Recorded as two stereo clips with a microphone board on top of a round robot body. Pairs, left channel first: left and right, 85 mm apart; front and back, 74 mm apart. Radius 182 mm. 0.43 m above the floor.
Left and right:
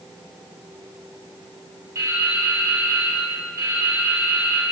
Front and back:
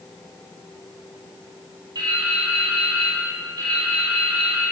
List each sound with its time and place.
1.9 s dripping: 150° right, 2.5 m